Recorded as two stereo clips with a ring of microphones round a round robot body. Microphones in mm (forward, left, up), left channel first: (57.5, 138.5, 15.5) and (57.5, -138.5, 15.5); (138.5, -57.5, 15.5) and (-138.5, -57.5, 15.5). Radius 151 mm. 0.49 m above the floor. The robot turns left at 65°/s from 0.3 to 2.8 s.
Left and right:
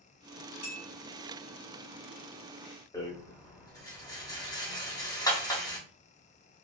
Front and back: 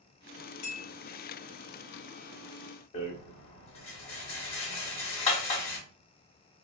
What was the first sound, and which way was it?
A clink, 5° right.